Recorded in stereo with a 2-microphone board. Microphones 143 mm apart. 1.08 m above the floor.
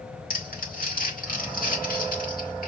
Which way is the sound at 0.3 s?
75° left (ahead or behind).